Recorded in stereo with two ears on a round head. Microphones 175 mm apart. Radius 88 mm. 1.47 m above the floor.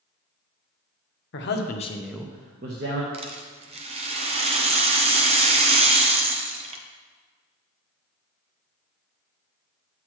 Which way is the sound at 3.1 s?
30° right (ahead or behind).